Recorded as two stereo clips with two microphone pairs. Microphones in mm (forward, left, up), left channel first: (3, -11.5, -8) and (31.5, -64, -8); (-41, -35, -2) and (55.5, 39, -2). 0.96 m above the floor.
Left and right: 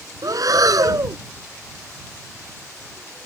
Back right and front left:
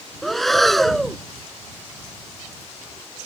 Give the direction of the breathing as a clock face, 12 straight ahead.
2 o'clock.